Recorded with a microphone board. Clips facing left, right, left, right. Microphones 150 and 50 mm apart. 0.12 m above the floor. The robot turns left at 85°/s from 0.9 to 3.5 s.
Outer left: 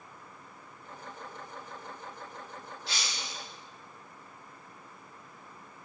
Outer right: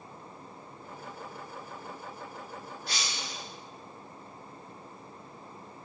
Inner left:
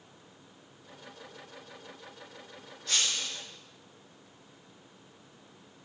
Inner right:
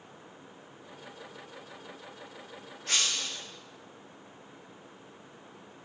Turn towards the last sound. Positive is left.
turn(degrees=-105)